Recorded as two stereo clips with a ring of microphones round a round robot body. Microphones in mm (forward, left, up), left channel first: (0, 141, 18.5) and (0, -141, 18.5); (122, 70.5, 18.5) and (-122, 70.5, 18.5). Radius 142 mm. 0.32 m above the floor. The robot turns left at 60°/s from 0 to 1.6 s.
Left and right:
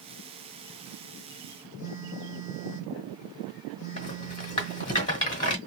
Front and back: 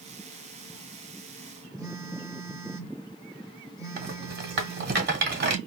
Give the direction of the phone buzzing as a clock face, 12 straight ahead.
8 o'clock.